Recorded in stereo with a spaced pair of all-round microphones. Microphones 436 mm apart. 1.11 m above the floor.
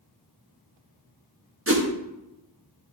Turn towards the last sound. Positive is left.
turn(degrees=-30)  # may be behind; listen again after turning